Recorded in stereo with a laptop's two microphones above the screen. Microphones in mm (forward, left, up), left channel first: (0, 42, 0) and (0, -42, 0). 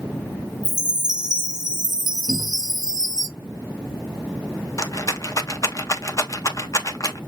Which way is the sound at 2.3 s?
70° left (ahead or behind).